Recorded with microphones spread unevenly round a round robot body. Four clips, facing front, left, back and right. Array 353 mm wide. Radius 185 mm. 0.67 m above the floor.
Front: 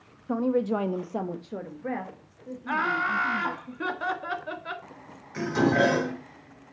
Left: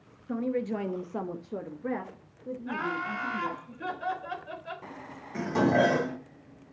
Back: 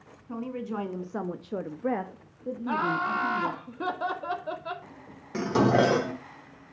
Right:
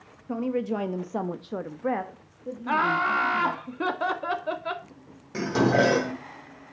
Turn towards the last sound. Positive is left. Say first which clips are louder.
# right 2 dB, back 1 dB
turn(degrees=-160)